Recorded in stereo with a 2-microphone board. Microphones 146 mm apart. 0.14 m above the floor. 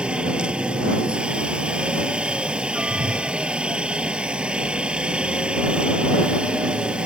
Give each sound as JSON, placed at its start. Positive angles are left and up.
{"t": 0.0, "sound": "a helicopter", "side_deg": -5}
{"t": 2.9, "sound": "a whoosh", "side_deg": -80}